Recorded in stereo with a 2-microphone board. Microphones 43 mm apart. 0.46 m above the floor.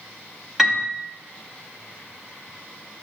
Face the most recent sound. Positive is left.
turn(degrees=-5)  # may be behind; listen again after turning